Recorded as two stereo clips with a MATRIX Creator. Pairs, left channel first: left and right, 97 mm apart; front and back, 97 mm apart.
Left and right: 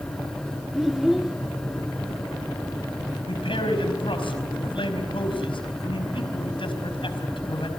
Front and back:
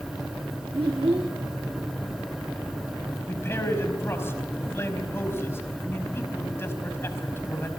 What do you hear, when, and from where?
0.7 s a child speaking: 175° right, 1.0 m
3.3 s a man speaking: 65° left, 4.5 m